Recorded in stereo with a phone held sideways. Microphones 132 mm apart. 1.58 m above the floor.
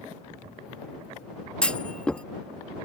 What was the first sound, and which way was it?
A clunk, 10° left (ahead or behind).